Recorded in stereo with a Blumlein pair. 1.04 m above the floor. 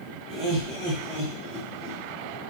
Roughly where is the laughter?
Ahead right.